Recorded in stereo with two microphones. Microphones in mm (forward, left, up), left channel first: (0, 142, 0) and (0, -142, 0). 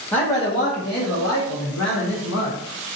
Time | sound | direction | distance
0.1 | a man speaking | 5° left (ahead or behind) | 0.8 m